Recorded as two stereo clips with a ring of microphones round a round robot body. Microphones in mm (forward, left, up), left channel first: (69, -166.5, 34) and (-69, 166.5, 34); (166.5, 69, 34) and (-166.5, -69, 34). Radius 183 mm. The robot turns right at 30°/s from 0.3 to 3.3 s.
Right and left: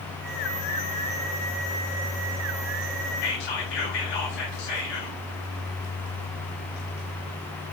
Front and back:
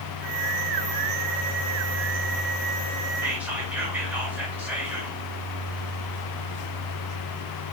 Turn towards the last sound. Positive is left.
turn(degrees=-70)